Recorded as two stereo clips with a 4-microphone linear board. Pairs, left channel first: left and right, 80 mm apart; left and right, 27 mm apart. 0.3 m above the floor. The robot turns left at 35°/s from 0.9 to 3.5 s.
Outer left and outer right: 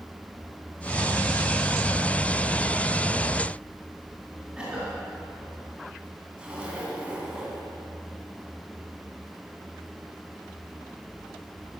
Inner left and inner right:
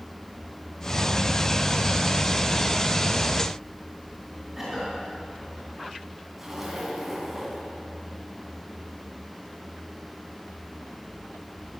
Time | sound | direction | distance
4.6 | a cough | 10° right (ahead or behind) | 4 m
6.4 | a zipper | 15° right (ahead or behind) | 2.5 m